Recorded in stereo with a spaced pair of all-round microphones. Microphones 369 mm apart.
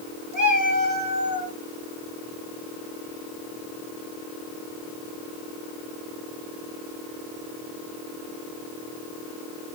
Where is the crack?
I don't hear a crack.